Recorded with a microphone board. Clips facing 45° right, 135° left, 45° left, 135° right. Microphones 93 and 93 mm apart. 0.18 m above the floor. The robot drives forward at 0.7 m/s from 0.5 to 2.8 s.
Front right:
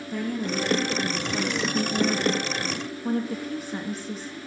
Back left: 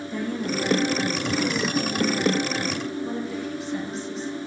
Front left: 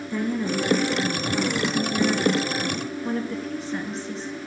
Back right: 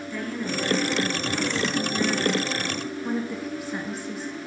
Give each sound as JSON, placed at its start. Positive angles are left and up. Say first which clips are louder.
{"t": 0.1, "sound": "a woman speaking", "louder": "even, front left 5 dB", "azimuth_deg": -25, "distance_m": 3.0}